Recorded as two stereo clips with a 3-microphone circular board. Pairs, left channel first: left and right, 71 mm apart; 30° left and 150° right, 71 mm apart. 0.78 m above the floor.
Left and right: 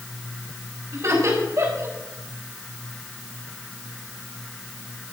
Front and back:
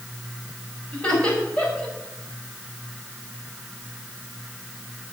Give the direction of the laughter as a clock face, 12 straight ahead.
2 o'clock.